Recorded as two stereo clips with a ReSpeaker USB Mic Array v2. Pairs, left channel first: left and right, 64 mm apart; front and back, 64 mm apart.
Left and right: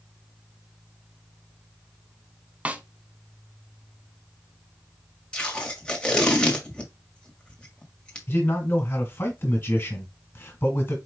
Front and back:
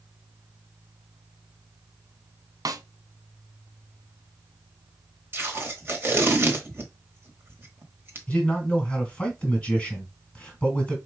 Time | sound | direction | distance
2.6 | a snare drum | 160° right | 0.5 m
5.3 | tape being pulled | 155° left | 1.3 m
8.3 | a man speaking | 65° left | 1.8 m